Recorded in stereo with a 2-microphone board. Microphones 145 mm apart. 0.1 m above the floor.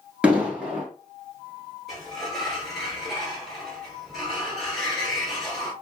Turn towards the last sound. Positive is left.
turn(degrees=0)  # may be behind; listen again after turning